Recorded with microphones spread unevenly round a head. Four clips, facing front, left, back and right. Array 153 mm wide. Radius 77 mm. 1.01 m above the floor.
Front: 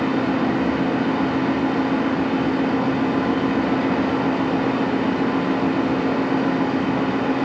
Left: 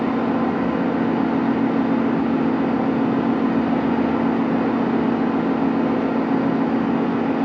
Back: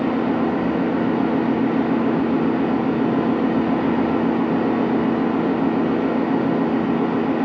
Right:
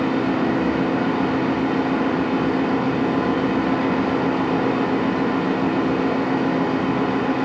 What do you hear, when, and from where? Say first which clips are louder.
0.0 s a fan: even, back 1 dB; 165° left, 1.6 m